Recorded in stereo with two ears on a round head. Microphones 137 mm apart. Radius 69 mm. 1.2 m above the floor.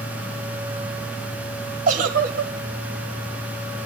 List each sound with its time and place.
1.9 s a giggle: 55° right (ahead or behind), 2.5 m